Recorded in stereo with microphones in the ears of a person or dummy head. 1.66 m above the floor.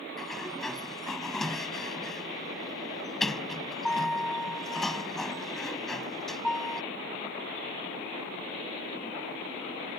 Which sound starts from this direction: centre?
A sliding door, at 0.2 s.